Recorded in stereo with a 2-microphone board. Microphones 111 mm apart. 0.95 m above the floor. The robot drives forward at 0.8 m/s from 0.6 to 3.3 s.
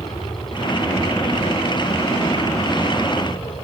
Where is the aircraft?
45° left (ahead or behind); by 3.6 s 50° left (ahead or behind).